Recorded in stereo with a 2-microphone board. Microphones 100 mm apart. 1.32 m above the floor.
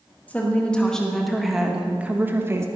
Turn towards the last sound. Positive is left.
turn(degrees=-30)  # may be behind; listen again after turning